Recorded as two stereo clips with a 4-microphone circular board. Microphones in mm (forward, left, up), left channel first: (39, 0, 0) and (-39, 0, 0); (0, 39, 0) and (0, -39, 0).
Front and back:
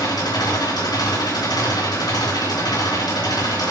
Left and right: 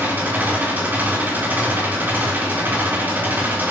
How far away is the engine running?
About 3 m.